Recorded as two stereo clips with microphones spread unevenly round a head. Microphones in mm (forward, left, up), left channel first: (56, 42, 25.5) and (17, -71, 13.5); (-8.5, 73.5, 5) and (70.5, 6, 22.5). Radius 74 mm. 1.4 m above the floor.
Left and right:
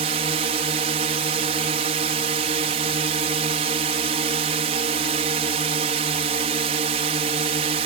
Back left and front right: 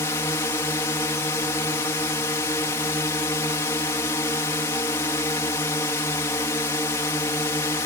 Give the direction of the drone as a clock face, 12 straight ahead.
5 o'clock.